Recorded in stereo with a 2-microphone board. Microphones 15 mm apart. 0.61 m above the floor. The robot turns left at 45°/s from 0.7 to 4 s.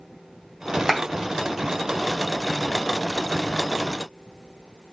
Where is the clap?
5° right (ahead or behind), 3.5 m; by 1.0 s 10° right (ahead or behind), 3.5 m.